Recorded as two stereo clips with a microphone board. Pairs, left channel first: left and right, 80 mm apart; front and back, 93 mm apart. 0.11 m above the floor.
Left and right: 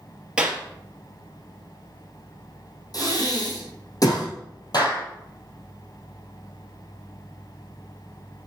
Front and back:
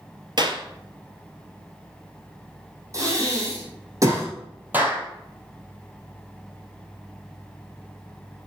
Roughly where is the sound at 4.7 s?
Left.